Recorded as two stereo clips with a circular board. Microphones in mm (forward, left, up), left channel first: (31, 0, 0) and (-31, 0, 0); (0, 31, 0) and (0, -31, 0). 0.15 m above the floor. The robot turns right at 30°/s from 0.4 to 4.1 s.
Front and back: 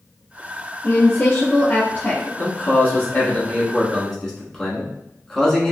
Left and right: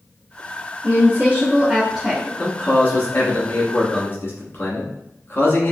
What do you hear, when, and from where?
0.8 s a woman speaking: 45° right, 1.4 m; by 2.3 s 5° right, 1.4 m
2.4 s a man speaking: 25° left, 1.3 m; by 5.7 s 75° left, 1.3 m